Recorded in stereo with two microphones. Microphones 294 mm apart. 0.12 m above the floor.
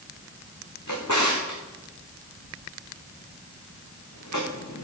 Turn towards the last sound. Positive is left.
turn(degrees=75)  # may be behind; listen again after turning